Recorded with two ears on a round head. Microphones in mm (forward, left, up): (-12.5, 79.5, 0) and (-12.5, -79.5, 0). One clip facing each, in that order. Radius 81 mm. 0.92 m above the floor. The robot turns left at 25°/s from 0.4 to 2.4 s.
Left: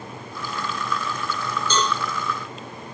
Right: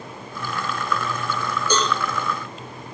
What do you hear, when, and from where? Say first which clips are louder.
1.7 s a cowbell: right 2 dB; 15° right (ahead or behind), 6.5 m; by 1.9 s 10° right (ahead or behind), 6.5 m